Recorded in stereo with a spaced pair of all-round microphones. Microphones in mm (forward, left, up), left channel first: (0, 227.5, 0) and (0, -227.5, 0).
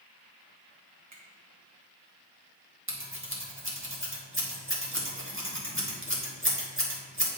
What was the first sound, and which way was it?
A finger snap, 40° right (ahead or behind).